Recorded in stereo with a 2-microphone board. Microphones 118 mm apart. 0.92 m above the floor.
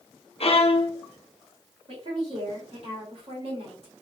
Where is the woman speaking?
60° right (ahead or behind), 2.5 m.